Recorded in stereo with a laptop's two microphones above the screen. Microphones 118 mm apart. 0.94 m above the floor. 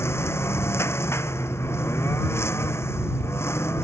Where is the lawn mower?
20° left (ahead or behind).